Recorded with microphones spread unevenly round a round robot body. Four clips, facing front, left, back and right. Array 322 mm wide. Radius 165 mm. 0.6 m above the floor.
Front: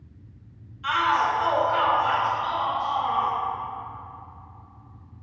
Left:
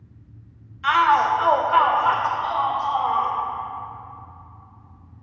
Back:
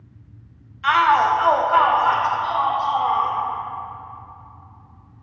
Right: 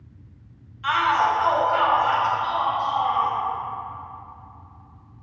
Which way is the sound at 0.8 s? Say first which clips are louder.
Left 3 dB, back 7 dB; 140° left.